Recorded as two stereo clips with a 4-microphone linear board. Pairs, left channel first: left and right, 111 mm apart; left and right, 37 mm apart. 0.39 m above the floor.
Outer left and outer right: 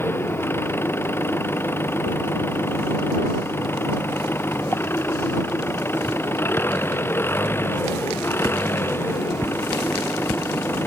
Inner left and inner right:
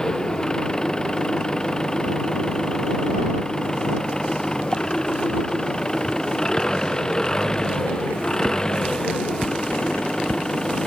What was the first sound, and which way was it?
An engine running, 20° left (ahead or behind).